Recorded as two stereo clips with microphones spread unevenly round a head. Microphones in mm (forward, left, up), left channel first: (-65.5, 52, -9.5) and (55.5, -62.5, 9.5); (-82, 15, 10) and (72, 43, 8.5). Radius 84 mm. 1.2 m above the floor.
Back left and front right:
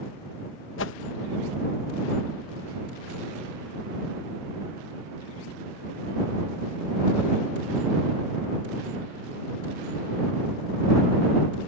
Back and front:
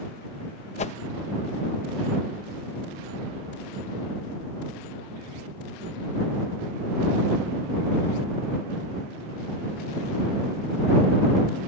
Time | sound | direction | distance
0.8 | a whoosh | 145° left | ?